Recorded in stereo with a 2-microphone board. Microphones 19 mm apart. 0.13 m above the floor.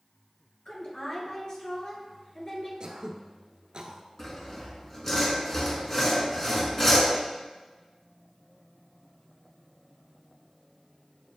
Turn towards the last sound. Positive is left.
turn(degrees=20)  # may be behind; listen again after turning